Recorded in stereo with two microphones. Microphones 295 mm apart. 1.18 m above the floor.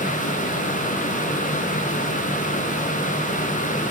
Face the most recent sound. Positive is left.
No sound to turn to.